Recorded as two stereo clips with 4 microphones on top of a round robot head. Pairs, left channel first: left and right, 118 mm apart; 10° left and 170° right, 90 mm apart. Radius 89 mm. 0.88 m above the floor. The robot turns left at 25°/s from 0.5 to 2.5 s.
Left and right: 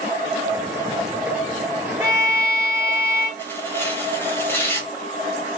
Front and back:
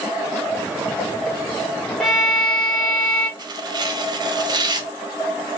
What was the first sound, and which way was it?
A violin, 95° left.